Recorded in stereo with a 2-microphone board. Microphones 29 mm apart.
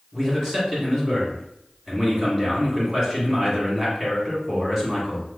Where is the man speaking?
20° right (ahead or behind), 1.8 m.